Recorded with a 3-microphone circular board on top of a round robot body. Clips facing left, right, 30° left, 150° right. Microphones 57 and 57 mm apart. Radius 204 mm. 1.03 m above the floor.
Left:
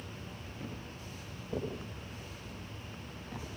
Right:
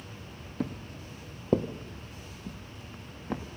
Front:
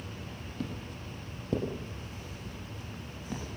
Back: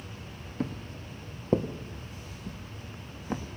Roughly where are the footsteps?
Right.